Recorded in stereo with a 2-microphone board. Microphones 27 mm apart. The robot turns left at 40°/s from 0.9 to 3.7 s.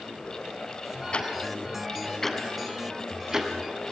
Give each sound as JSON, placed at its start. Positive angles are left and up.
{"t": 1.1, "sound": "ticking", "side_deg": 40, "distance_m": 2.0}